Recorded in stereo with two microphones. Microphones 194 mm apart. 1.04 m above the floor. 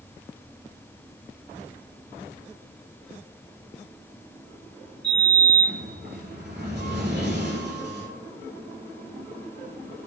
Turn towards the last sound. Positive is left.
turn(degrees=-60)  # may be behind; listen again after turning